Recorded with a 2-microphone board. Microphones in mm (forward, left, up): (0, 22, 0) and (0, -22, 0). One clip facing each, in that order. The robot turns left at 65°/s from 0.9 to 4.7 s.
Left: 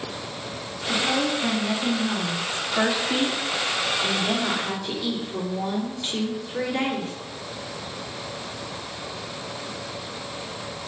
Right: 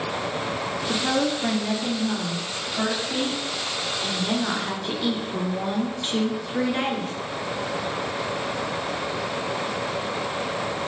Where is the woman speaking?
140° right, 3 m; by 7.1 s 30° right, 3 m.